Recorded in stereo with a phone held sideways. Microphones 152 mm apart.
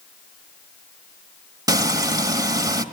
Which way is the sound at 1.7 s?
25° right (ahead or behind).